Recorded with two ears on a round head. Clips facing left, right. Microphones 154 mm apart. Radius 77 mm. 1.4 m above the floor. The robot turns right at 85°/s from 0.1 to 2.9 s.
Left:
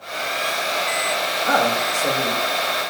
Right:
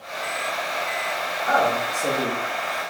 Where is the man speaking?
130° left, 0.7 m; by 2.4 s 150° right, 0.7 m.